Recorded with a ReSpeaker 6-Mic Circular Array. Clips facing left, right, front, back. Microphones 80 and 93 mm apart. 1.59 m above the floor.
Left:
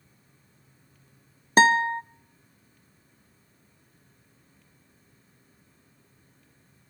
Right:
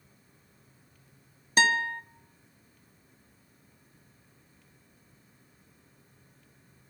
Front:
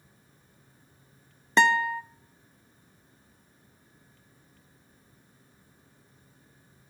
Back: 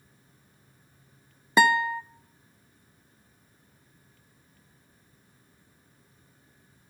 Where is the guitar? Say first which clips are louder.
Left 6 dB, back 1 dB; 100° left, 0.6 m.